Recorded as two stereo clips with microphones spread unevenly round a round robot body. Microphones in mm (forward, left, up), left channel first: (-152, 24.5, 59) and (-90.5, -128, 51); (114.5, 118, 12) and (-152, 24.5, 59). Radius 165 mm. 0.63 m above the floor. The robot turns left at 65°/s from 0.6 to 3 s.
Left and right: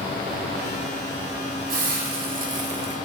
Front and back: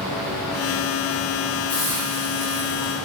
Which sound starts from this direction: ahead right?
A hiss, at 1.7 s.